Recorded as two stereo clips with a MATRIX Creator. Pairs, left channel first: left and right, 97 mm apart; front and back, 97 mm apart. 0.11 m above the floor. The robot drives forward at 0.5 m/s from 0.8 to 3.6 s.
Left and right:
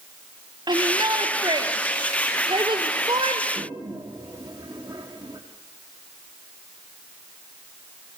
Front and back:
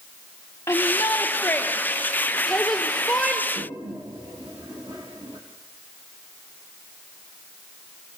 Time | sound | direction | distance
0.7 | a shout | 60° right | 3 m
3.5 | a toilet flushing | 135° right | 5.5 m